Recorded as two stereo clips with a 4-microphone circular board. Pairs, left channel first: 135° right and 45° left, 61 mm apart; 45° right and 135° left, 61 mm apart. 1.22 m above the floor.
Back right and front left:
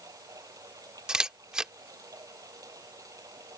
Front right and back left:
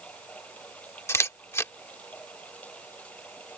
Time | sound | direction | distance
0.0 | running water | 25° left | ?
1.1 | a camera shutter | 30° right | ?